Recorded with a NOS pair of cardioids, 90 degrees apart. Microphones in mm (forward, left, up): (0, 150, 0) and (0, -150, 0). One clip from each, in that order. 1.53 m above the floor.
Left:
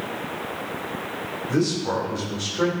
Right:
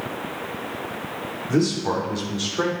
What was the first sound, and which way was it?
A man speaking, 20° right.